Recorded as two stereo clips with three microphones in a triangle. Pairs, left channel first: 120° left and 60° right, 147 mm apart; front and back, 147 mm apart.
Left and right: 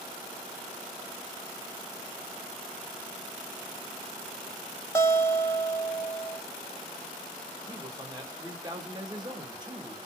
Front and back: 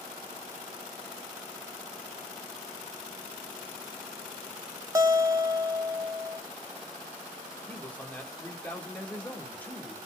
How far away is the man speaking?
About 0.8 m.